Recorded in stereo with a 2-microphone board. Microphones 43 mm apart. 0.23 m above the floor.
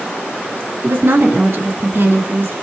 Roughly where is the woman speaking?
Right.